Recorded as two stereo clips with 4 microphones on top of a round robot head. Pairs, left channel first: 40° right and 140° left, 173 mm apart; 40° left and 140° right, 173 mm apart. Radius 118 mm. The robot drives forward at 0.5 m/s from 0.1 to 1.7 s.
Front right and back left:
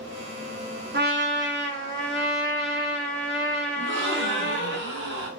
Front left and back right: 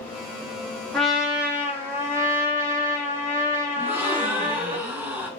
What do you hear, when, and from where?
0.9 s a trumpet: 125° left, 0.9 m; by 4.8 s 140° left, 1.2 m
3.8 s a gasp: 140° left, 0.7 m